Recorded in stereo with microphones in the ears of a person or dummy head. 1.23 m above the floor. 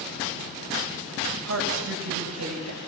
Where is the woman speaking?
80° right, 6.5 m; by 2.8 s 85° right, 7 m.